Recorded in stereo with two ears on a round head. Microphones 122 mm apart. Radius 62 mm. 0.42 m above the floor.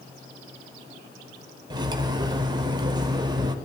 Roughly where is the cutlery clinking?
Right.